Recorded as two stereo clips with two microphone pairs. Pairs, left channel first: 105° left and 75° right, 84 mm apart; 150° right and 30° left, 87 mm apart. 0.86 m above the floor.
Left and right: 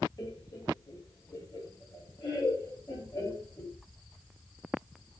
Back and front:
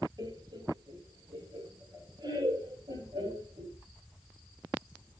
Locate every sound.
0.2 s laughter: 65° left, 2.5 m